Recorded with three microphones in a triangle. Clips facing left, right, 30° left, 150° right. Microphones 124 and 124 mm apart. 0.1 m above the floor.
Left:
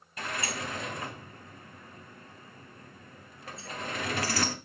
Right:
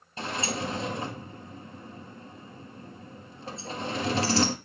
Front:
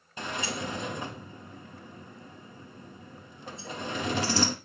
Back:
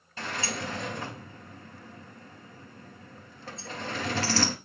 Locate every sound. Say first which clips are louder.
0.2 s a sliding door: right 4 dB, even; 40° right, 1.1 m